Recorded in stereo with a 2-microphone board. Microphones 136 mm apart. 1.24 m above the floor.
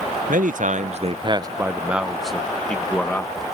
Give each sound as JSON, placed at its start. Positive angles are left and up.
{"t": 0.3, "sound": "a man speaking", "side_deg": -80}